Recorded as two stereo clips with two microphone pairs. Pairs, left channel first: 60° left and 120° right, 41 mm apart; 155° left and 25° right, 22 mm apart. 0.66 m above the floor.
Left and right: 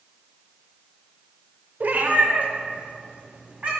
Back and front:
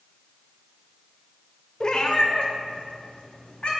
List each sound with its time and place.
1.8 s a cat meowing: 155° right, 0.5 m; by 3.7 s 175° right, 1.6 m